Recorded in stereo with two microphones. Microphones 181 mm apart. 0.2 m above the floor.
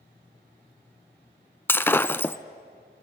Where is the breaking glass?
10° left (ahead or behind), 0.5 m.